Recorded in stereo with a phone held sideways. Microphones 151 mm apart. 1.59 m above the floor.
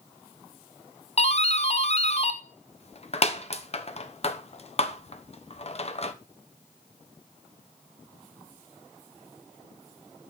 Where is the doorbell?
45° left (ahead or behind), 1.0 m.